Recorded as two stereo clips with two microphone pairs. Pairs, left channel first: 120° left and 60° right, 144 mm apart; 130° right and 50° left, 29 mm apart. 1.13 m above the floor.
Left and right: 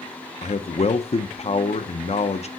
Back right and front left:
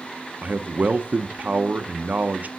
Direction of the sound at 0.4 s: 75° left.